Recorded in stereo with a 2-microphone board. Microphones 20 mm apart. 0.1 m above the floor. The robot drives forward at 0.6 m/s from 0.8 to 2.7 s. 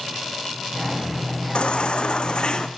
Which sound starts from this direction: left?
A baby crying, at 1.6 s.